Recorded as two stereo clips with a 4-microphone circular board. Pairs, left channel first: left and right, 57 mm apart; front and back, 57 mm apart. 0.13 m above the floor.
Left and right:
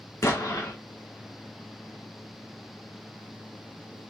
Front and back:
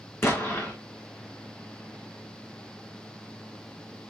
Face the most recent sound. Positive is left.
turn(degrees=50)